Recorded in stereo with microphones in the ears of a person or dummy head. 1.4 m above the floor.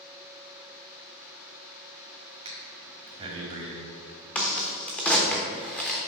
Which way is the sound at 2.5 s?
25° right (ahead or behind).